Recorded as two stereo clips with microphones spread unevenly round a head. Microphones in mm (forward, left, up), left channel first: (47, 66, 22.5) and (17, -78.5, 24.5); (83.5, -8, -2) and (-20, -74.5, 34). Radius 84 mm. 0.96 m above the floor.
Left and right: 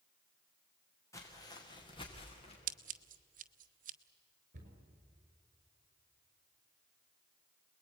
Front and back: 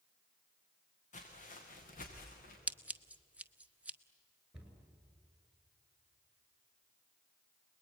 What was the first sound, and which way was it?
Footsteps, 10° left.